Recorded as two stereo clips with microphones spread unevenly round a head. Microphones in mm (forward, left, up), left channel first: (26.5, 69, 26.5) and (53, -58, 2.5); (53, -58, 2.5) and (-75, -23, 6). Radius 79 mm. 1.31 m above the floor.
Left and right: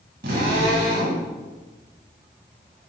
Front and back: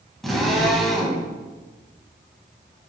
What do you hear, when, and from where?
0.2 s a drill: 105° right, 6 m